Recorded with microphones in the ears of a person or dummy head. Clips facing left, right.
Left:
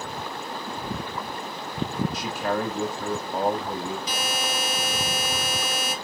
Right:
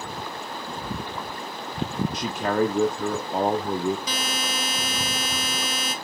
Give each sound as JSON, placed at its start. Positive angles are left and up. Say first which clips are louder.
{"t": 2.1, "sound": "a man speaking", "louder": "right 3 dB", "side_deg": -50, "distance_m": 0.7}
{"t": 4.1, "sound": "a buzzer", "louder": "left 1 dB", "side_deg": -65, "distance_m": 1.5}